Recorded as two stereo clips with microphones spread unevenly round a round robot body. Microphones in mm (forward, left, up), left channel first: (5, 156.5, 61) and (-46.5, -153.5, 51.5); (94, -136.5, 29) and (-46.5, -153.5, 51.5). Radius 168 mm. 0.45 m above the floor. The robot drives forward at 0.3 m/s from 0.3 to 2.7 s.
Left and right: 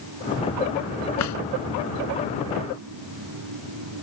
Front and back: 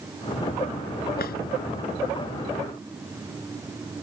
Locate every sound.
1.2 s a drawer: 40° left